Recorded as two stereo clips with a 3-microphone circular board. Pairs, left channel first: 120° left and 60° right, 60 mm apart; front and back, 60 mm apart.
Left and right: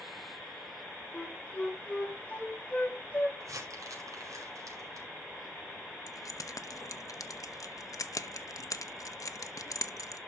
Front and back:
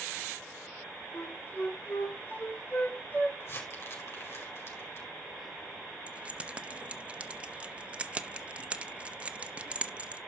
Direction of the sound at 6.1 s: 110° left.